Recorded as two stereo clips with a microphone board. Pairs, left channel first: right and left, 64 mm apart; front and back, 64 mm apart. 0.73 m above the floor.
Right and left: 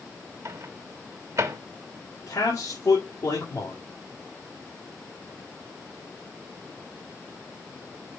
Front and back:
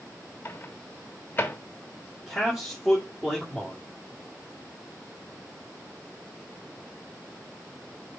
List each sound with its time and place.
0.5 s a microwave: 60° left, 0.9 m
2.3 s a man speaking: 105° right, 2.0 m